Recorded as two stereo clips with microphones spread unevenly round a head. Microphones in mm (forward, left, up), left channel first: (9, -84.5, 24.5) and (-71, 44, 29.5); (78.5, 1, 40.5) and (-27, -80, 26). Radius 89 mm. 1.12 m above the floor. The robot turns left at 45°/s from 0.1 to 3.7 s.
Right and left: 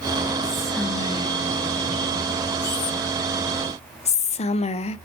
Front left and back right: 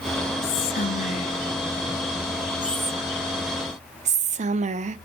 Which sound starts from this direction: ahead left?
Whispering, at 0.4 s.